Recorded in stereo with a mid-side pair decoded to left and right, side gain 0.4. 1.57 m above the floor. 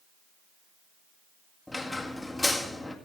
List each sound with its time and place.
1.7 s a squeak: 15° left, 1.9 m